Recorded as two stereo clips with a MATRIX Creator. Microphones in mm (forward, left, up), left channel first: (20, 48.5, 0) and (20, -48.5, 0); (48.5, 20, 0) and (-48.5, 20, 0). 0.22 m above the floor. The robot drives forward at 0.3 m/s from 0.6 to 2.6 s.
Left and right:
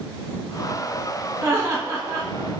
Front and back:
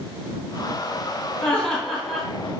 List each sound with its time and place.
1.4 s laughter: 70° right, 1.1 m; by 2.3 s 95° right, 1.1 m